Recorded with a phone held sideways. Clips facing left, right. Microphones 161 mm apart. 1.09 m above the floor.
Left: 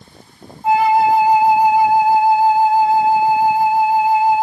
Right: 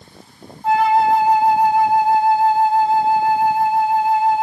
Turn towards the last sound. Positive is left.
turn(degrees=5)  # may be behind; listen again after turning